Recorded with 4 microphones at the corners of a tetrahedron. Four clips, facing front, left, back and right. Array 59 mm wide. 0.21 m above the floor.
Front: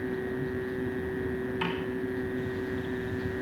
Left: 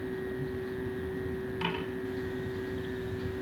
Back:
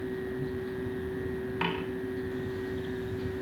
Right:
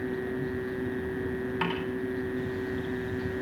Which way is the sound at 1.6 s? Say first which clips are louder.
Right 3 dB, back 2 dB; 130° right.